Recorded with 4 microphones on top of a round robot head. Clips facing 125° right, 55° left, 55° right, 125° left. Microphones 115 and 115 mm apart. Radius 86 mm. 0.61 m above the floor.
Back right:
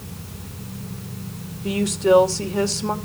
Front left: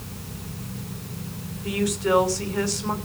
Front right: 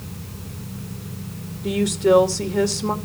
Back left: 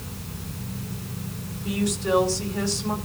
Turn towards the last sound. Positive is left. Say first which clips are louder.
# back right 5 dB, front right 7 dB
turn(degrees=-65)